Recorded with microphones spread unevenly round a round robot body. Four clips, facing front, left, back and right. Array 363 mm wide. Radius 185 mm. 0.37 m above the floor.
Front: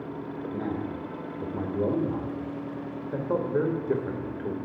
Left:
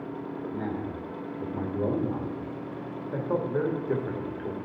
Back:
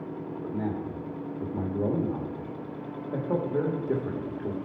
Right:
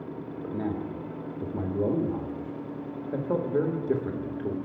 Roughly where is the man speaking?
Right.